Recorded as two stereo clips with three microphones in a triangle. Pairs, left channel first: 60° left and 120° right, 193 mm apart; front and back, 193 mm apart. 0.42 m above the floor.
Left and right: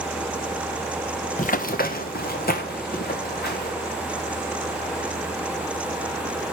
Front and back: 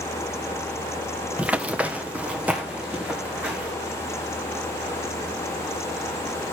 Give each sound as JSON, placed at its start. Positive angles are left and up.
{"t": 1.4, "sound": "running footsteps", "azimuth_deg": 95, "distance_m": 0.7}